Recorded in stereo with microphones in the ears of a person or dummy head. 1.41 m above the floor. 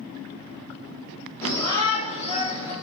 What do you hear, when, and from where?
1.4 s a shout: 15° left (ahead or behind), 3 m; by 2.7 s 50° left (ahead or behind), 3.5 m